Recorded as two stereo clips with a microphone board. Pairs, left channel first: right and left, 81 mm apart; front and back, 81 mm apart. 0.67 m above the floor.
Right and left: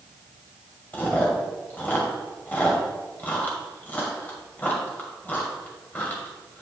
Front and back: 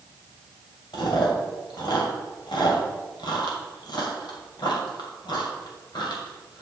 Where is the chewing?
20° right, 2 m.